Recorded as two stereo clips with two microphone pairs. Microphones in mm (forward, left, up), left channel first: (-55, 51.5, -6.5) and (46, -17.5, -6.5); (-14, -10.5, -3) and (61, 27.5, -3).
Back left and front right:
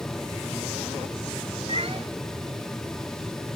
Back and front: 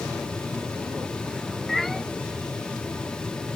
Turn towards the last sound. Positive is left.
turn(degrees=-65)